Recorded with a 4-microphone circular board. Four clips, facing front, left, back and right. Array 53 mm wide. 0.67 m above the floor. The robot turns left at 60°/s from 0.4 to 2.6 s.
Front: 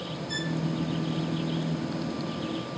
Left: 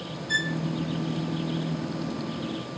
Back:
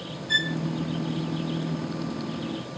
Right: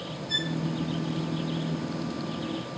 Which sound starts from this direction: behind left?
A violin, at 0.3 s.